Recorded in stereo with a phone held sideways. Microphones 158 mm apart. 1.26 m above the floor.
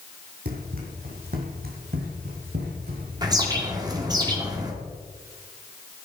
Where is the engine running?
I don't hear an engine running.